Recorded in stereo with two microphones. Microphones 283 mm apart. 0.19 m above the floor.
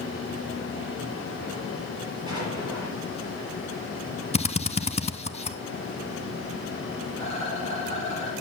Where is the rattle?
20° left (ahead or behind), 5.5 m.